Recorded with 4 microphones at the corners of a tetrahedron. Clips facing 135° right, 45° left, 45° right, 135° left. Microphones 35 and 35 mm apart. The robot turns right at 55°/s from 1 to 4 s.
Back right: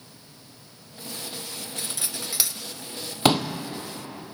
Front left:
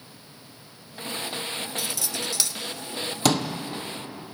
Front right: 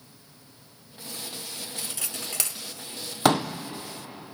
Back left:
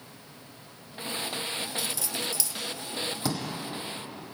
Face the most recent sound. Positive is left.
turn(degrees=-25)